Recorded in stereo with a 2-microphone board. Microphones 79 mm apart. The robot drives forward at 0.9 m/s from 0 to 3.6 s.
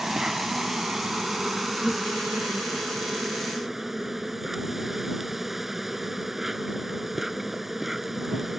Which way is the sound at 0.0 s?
5° right (ahead or behind).